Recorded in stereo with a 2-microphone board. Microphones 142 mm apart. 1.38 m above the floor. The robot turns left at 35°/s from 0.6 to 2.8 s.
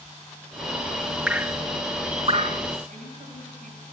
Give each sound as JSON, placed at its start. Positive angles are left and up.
{"t": 1.3, "sound": "dripping", "side_deg": -5, "distance_m": 1.0}
{"t": 2.9, "sound": "a woman speaking", "side_deg": -65, "distance_m": 8.5}